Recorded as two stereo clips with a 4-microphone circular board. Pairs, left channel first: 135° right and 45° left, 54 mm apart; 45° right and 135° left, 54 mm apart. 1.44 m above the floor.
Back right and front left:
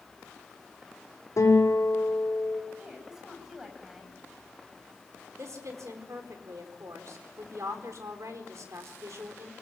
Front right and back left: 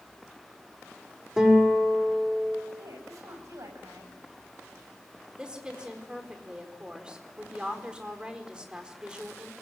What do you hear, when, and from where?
1.4 s a guitar: 145° right, 5.5 m
2.8 s a woman speaking: 125° left, 9 m
5.4 s a woman speaking: 60° left, 4.5 m